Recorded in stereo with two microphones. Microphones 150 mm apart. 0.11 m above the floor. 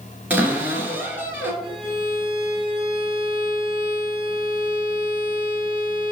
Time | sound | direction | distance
0.3 | a cupboard door | 10° right (ahead or behind) | 1.1 m
1.6 | a violin | 50° left (ahead or behind) | 2 m